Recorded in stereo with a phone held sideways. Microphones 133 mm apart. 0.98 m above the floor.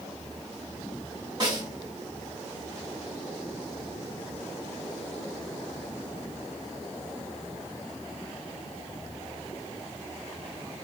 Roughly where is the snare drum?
Right.